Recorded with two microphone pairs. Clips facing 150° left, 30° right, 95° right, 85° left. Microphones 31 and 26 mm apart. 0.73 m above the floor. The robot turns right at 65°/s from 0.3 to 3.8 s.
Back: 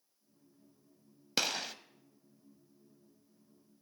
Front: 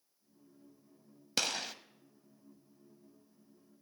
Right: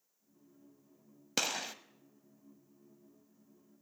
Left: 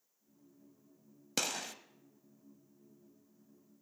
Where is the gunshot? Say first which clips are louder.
Back 1 dB, right 2 dB; 150° right, 0.5 m; by 1.7 s 125° right, 0.5 m.